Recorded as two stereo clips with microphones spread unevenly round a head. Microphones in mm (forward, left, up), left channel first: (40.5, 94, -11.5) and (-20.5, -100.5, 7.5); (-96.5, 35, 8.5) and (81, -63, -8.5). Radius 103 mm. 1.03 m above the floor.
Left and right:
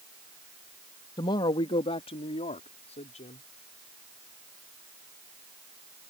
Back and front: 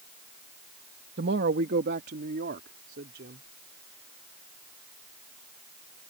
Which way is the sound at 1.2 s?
5° left.